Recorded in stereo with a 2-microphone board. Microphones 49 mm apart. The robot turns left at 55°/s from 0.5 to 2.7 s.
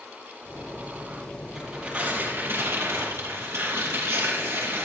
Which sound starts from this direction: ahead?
Tearing paper, at 1.6 s.